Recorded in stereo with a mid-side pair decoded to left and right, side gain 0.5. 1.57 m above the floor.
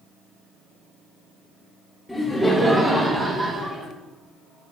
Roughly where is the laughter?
Ahead.